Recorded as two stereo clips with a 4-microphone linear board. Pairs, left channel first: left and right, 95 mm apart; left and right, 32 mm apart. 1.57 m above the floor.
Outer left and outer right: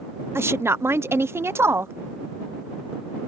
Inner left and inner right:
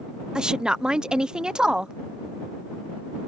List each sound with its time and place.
0.3 s a woman speaking: 25° right (ahead or behind)